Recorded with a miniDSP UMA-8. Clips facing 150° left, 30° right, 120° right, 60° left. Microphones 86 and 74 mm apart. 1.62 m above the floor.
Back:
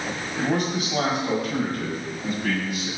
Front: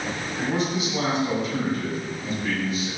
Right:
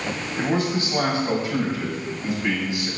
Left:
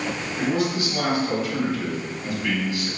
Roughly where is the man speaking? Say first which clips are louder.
Back 2 dB, even; behind.